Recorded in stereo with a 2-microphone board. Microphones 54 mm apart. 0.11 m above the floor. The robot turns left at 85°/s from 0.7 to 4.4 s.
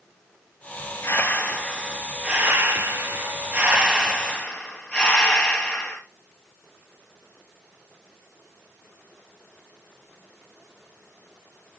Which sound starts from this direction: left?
Breathing, at 1.0 s.